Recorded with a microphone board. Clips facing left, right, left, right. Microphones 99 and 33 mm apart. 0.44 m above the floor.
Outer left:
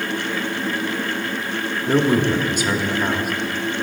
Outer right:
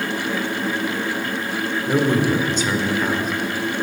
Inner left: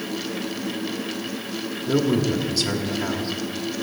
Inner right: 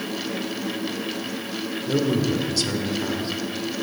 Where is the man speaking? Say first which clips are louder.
Outer left 1 dB, inner left 1 dB; 10° left (ahead or behind), 1.0 m.